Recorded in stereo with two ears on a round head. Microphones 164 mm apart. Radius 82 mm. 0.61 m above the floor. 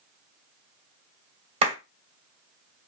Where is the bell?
I don't hear a bell.